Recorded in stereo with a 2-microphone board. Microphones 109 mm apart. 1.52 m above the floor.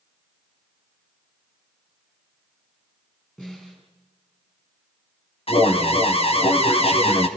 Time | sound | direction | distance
3.4 | a snare drum | 5° left (ahead or behind) | 10 m
5.5 | an alarm | 65° left (ahead or behind) | 2 m